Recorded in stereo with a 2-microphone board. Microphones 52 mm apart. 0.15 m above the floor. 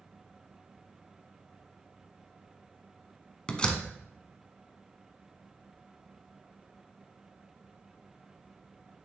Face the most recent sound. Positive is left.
turn(degrees=20)  # may be behind; listen again after turning